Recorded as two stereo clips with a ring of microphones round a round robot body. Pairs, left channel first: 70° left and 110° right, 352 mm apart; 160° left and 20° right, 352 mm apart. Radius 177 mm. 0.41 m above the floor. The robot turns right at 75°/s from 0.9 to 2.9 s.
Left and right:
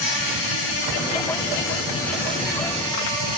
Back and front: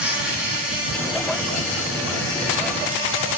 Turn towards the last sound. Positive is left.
turn(degrees=-145)